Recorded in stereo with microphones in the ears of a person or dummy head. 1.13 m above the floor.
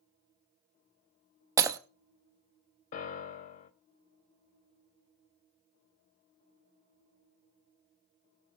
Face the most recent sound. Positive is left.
turn(degrees=50)  # may be behind; listen again after turning